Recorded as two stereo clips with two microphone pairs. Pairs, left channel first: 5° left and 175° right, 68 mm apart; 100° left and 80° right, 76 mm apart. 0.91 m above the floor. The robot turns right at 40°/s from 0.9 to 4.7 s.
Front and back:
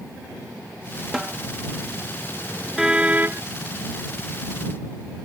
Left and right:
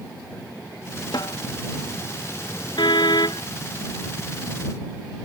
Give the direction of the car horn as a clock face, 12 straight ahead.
9 o'clock.